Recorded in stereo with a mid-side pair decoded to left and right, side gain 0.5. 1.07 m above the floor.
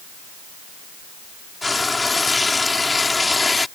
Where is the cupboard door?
I don't hear a cupboard door.